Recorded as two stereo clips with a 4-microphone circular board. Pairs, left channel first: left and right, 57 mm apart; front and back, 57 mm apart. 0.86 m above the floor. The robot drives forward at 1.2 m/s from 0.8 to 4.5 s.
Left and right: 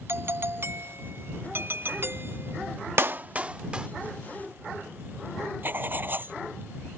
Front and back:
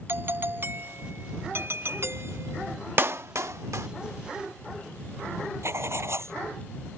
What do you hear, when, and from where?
0.1 s a doorbell: 130° right; by 2.8 s 140° right
3.0 s a clap: 135° right; by 3.9 s 160° right
5.6 s writing: 145° right